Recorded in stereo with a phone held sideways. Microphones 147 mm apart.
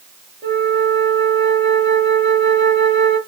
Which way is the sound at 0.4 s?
25° left (ahead or behind).